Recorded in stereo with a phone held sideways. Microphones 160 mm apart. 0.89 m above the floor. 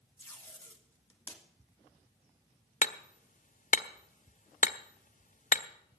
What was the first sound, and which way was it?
Tape being pulled, 15° left (ahead or behind).